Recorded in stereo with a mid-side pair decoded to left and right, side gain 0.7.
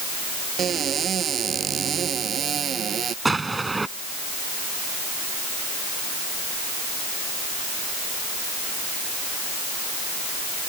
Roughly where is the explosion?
Ahead.